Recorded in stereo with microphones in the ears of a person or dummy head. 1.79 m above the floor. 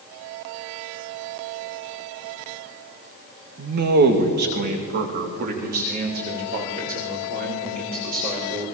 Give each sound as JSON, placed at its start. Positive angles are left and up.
{"t": 3.6, "sound": "a man speaking", "side_deg": -55, "distance_m": 2.0}